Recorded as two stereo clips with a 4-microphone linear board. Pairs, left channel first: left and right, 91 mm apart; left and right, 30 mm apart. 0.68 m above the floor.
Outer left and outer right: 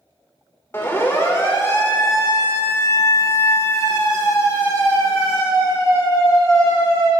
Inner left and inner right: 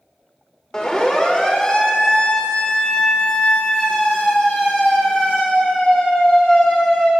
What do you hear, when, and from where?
0.7 s a siren: 25° left (ahead or behind), 2.5 m; by 7.1 s 35° left (ahead or behind), 7.5 m